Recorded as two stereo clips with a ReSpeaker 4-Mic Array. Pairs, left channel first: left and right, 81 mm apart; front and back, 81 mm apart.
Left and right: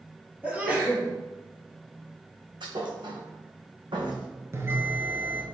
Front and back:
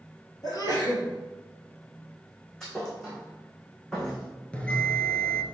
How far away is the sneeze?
About 3 m.